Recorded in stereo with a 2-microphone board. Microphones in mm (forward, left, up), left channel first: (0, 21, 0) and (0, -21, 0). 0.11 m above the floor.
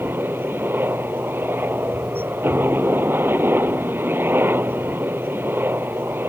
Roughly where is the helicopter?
Right.